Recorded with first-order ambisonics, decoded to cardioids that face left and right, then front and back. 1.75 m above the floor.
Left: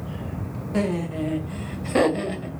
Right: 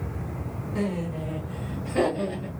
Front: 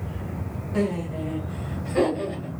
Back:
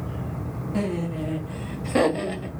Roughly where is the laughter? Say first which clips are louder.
Left 5 dB, front 2 dB; left.